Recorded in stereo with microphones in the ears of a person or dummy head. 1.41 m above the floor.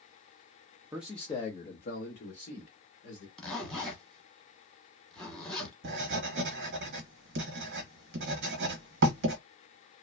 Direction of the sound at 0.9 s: 10° right (ahead or behind).